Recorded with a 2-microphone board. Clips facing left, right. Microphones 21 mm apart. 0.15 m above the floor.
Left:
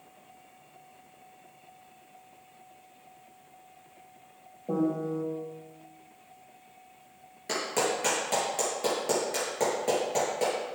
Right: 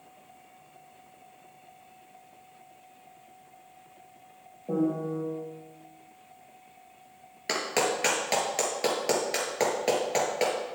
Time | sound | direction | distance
4.7 | a piano | 15° left (ahead or behind) | 3 m
7.5 | a clap | 60° right (ahead or behind) | 3 m